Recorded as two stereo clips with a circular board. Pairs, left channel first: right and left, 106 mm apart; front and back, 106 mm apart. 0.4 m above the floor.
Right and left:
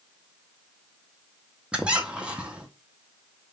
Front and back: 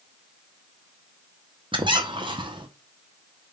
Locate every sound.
1.7 s a squeak: 165° left, 0.6 m